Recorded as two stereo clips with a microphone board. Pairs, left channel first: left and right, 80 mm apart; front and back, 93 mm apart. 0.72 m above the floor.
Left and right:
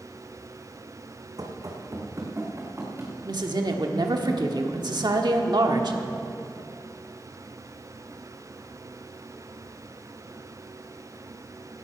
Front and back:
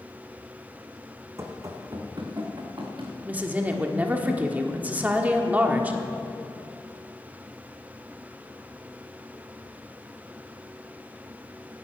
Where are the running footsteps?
125° right, 1.8 m; by 3.1 s 150° right, 3 m.